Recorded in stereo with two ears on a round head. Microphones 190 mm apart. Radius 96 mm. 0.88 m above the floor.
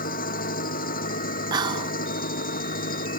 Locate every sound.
0.0 s an engine running: 40° left (ahead or behind)
1.5 s whispering: 20° right (ahead or behind)